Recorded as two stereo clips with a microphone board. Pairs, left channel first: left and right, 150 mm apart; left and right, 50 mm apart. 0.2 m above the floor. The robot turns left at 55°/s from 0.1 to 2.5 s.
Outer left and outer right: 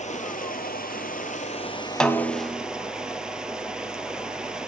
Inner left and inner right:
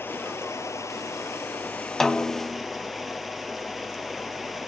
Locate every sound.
0.0 s running water: 125° left, 1.6 m; by 4.7 s 5° right, 1.6 m
2.0 s a snare drum: 5° left (ahead or behind), 1.2 m; by 2.6 s 10° right (ahead or behind), 1.2 m